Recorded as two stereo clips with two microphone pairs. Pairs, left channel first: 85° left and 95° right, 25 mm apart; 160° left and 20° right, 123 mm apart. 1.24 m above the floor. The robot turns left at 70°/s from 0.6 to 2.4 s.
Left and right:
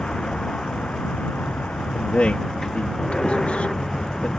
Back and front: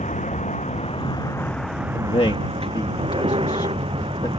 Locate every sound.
0.0 s a vehicle: 145° left; by 4.4 s 20° left
1.9 s a man speaking: 135° left; by 4.3 s 105° left